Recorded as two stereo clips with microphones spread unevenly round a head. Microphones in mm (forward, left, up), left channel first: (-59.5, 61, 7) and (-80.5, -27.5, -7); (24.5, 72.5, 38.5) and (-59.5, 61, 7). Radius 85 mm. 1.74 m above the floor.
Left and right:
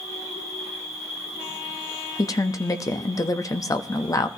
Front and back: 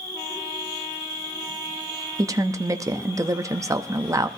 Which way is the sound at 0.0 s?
80° left.